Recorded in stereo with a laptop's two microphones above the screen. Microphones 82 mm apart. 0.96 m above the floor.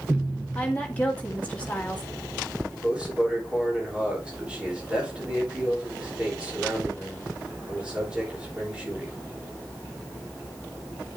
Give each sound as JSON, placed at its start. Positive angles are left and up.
{"t": 0.6, "sound": "a woman speaking", "side_deg": 20, "distance_m": 1.7}
{"t": 2.7, "sound": "a man speaking", "side_deg": -15, "distance_m": 3.0}